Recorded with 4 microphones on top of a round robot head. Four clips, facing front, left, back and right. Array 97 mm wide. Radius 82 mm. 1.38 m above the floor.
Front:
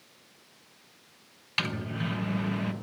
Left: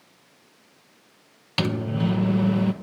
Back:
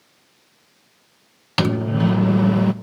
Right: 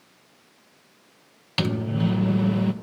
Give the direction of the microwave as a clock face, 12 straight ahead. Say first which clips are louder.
Even, back 13 dB; 6 o'clock.